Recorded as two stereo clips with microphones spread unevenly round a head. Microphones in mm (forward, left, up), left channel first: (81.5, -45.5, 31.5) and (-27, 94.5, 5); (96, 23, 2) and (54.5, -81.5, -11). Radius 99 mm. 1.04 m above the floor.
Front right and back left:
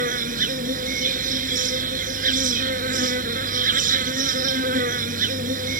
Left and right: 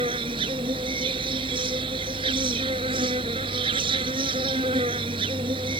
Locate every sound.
0.0 s an insect: 175° right